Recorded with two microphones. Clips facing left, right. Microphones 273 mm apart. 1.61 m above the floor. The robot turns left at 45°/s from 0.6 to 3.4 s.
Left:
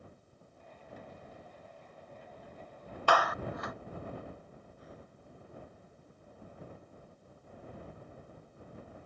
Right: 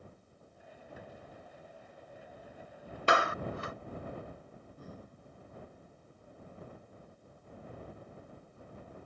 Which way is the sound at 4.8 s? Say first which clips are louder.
Right 5 dB; 50° right (ahead or behind).